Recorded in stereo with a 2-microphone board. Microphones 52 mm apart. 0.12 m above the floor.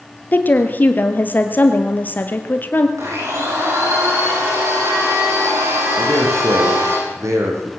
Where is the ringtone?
No ringtone in this recording.